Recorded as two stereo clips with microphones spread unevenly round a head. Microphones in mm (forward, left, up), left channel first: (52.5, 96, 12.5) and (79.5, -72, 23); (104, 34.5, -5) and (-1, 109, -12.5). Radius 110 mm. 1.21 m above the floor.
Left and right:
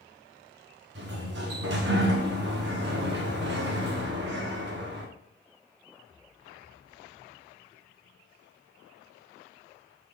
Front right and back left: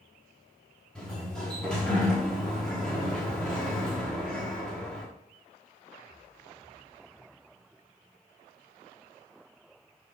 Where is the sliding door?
120° right, 1.3 m.